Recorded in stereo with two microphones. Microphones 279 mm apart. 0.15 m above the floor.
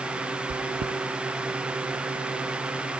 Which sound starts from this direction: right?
Chewing, at 0.5 s.